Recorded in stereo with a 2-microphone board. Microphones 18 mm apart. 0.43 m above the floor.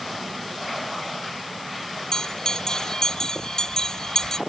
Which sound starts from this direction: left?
A bell, at 2.1 s.